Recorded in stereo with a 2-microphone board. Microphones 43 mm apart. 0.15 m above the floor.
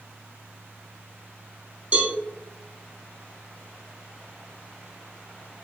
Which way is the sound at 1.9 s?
35° right (ahead or behind).